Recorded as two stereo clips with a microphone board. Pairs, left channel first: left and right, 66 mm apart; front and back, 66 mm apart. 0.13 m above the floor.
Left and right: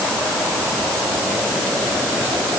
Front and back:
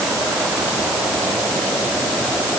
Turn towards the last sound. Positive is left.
No sound to turn to.